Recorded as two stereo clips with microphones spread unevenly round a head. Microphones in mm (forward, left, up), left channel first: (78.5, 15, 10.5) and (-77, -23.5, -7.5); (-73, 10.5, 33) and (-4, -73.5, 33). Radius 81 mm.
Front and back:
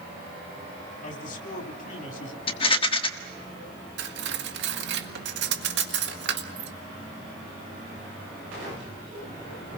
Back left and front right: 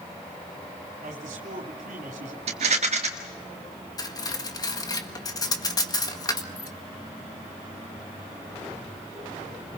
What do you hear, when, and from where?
1.0 s a man speaking: 30° right, 3 m
2.5 s a rattle: 30° right, 1.6 m
4.0 s cutlery clinking: straight behind, 1.6 m